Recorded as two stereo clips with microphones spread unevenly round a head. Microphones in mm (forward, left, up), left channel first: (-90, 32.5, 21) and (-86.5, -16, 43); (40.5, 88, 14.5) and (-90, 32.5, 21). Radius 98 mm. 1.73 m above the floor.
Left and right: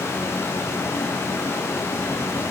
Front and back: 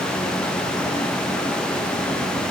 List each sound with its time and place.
Only background noise.